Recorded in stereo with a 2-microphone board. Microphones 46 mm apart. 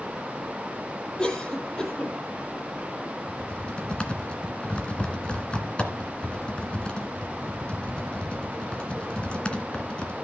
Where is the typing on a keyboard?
25° left (ahead or behind), 2 m.